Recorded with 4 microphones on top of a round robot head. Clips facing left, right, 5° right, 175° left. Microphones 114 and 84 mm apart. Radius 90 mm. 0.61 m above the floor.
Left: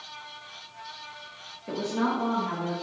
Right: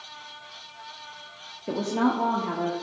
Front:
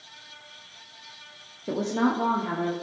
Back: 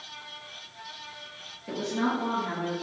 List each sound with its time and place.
1.7 s a woman speaking: 45° right, 0.8 m; by 2.7 s 60° right, 1.3 m